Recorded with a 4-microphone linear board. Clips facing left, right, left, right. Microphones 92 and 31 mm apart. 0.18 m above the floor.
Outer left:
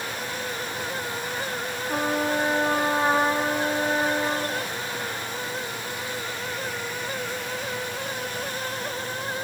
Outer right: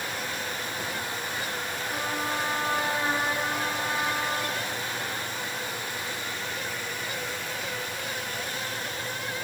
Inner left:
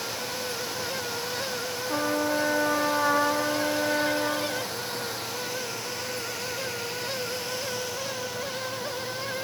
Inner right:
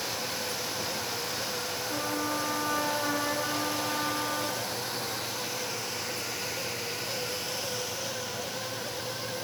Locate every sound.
1.9 s a trumpet: 45° left (ahead or behind), 1.4 m